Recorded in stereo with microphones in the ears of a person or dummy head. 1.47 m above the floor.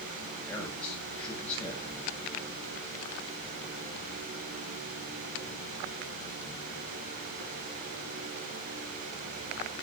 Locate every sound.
0.5 s a man speaking: 5° left (ahead or behind), 7.5 m